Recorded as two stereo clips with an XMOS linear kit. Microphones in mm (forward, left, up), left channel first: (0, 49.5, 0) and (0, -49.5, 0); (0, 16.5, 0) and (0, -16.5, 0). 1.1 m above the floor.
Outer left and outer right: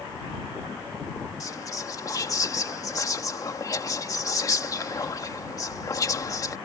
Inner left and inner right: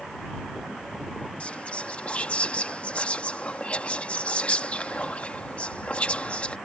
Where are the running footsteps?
No running footsteps in this recording.